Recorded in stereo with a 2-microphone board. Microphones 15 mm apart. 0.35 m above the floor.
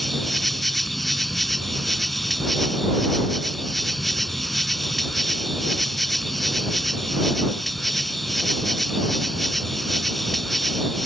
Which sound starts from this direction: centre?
An insect, at 0.0 s.